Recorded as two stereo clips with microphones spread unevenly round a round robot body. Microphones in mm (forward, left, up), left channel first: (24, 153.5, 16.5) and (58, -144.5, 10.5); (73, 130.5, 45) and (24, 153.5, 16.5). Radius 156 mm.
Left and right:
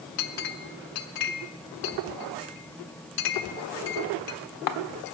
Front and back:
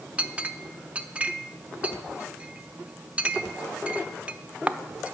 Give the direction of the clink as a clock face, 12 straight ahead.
9 o'clock.